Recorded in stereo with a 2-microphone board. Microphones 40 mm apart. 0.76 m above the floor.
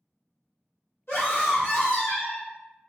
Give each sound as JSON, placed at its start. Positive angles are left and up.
{"t": 1.1, "sound": "a scream", "side_deg": 70, "distance_m": 1.8}